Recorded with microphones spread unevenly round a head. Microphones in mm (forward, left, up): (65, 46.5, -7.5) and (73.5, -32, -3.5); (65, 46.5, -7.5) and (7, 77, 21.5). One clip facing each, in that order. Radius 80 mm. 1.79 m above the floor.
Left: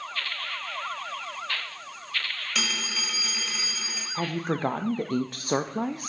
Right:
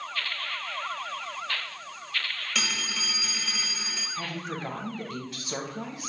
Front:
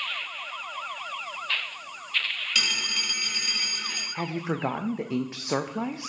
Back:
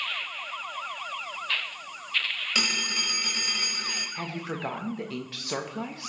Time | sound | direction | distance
2.5 | a phone ringing | 175° right | 1.5 m
4.2 | a woman speaking | 45° left | 0.6 m